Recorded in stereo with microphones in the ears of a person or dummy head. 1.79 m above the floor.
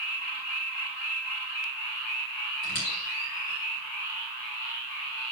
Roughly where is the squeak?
Left.